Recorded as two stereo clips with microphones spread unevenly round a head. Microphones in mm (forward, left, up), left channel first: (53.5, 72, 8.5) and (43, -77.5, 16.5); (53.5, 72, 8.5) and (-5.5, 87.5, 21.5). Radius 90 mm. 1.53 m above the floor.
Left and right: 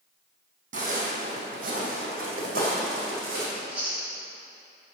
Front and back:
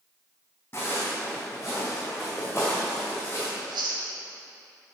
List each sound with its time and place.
0.7 s footsteps: 95° right, 2.5 m; by 3.5 s 125° right, 3.5 m
3.5 s chewing: 175° right, 1.1 m